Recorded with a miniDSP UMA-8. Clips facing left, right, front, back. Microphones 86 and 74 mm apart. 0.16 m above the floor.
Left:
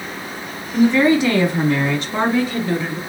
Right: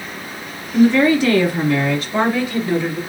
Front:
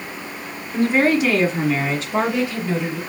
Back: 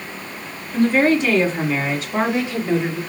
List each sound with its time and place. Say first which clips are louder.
0.7 s a woman speaking: right 1 dB, back 1 dB; 35° left, 1.3 m; by 3.0 s 125° left, 1.7 m